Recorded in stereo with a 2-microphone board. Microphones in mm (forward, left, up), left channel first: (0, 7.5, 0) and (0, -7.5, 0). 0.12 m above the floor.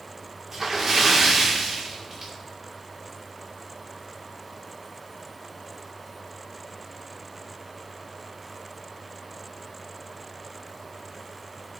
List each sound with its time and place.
0.5 s a splash: 25° right (ahead or behind), 3.5 m